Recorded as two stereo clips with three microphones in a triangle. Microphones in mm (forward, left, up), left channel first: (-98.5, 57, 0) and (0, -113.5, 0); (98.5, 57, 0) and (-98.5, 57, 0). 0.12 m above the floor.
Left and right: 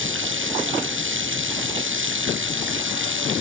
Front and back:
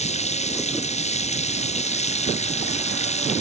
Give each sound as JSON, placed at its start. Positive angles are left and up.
{"t": 0.0, "sound": "running water", "azimuth_deg": -55}